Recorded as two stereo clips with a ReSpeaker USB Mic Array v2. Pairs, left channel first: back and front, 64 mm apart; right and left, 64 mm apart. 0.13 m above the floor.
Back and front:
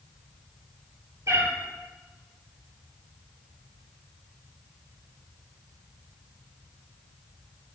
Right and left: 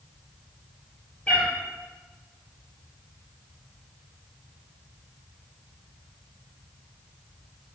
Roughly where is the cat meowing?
Ahead right.